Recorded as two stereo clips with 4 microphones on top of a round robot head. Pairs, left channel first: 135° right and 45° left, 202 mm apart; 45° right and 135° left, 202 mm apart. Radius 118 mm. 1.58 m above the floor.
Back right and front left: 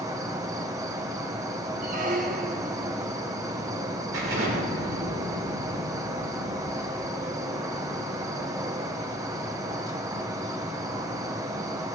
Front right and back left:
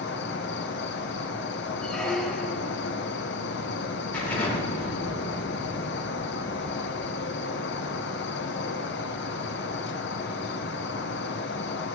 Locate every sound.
0.0 s an insect: 25° right, 0.7 m
1.8 s a squeak: 40° left, 0.8 m
4.1 s an explosion: 40° left, 4.5 m